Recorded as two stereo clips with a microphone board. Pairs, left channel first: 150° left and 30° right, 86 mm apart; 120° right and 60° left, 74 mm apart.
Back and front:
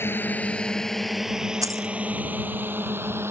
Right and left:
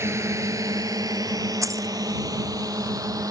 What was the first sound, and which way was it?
A drone, 95° left.